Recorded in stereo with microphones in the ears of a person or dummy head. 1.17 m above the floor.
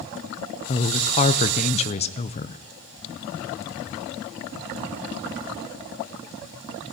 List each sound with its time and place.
0.7 s a woman speaking: 30° left (ahead or behind), 0.5 m